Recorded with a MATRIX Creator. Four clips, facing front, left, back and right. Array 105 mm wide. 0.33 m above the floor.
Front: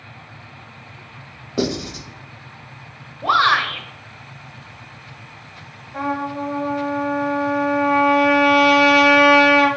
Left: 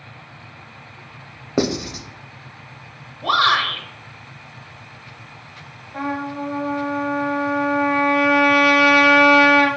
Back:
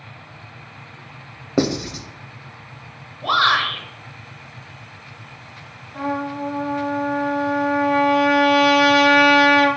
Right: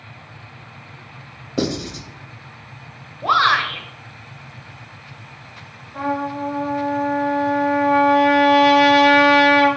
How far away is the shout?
About 1.0 m.